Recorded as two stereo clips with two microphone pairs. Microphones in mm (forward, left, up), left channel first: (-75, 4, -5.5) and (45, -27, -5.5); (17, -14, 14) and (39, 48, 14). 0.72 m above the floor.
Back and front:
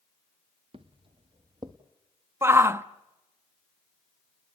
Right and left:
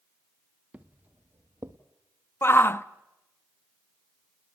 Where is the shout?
75° right, 0.6 m.